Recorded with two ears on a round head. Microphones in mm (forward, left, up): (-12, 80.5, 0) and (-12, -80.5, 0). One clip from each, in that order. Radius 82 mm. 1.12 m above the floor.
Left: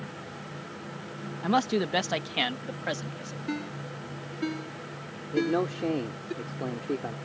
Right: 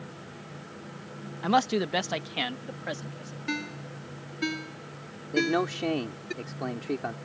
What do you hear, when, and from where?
1.4 s a man speaking: 25° right (ahead or behind); by 3.4 s 20° left (ahead or behind)
3.5 s a ringtone: 65° right (ahead or behind)
5.3 s a man speaking: 50° right (ahead or behind)